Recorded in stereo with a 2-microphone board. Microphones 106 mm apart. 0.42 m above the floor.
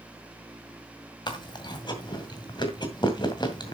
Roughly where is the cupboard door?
No cupboard door in this recording.